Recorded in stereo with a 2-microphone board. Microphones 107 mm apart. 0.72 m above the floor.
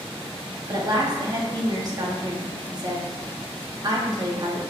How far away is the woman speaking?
About 0.9 m.